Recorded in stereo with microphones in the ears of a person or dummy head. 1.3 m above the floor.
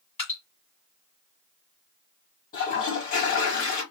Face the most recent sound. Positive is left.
turn(degrees=45)  # may be behind; listen again after turning